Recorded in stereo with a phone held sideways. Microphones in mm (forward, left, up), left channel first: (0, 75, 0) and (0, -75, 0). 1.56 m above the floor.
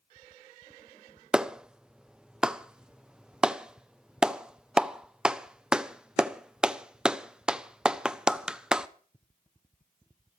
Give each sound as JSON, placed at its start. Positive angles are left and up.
{"t": 1.3, "sound": "a clap", "side_deg": -5, "distance_m": 0.5}